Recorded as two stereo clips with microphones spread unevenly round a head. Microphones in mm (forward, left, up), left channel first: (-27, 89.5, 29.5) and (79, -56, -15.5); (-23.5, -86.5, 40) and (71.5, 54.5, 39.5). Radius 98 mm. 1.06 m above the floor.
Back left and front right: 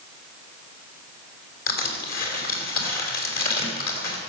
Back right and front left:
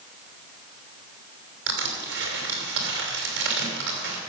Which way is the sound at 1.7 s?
85° left.